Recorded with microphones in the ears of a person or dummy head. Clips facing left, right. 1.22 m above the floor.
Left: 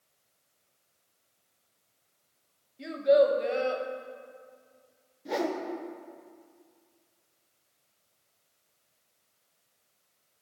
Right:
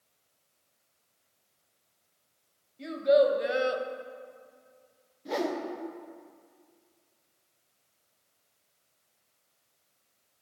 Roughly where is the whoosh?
Centre.